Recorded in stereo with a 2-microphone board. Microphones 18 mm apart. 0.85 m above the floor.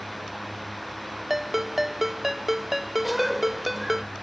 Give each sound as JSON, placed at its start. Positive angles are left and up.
{"t": 1.3, "sound": "a ringtone", "side_deg": -20}
{"t": 3.0, "sound": "a cough", "side_deg": -10}